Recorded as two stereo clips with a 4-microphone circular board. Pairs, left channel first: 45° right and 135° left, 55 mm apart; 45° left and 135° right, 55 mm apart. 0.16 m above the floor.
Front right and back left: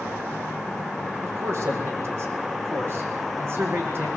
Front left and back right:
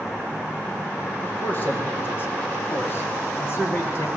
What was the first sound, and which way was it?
A man speaking, 100° left.